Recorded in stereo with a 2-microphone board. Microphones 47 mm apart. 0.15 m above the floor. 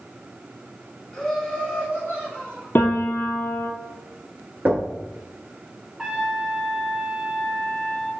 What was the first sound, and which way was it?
Laughter, 10° left (ahead or behind).